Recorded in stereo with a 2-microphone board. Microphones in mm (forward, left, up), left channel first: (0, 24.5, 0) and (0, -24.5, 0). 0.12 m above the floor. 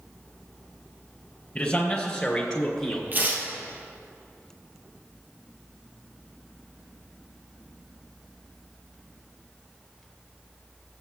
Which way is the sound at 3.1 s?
40° right (ahead or behind).